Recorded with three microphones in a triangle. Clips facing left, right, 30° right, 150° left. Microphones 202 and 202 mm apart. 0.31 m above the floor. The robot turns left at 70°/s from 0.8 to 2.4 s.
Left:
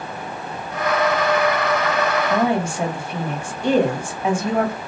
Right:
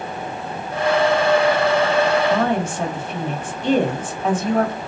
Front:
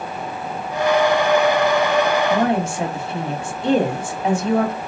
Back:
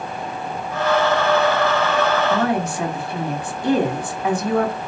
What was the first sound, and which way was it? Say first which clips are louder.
A woman speaking: even, front 1 dB; 25° left.